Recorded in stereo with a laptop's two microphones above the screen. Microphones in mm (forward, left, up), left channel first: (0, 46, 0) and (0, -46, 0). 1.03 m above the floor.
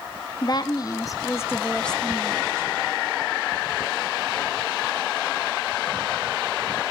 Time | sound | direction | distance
0.4 | a woman speaking | 45° left (ahead or behind) | 1.4 m